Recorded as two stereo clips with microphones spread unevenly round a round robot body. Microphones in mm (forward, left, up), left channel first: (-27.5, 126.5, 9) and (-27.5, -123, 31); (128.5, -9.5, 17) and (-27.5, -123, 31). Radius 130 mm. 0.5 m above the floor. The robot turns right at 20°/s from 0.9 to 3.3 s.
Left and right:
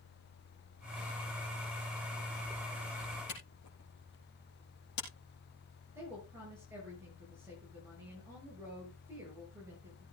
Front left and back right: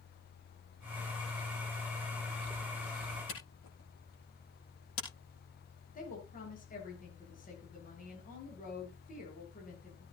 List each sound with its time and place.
3.3 s a camera shutter: 40° left, 7 m
6.0 s a woman speaking: 10° right, 8 m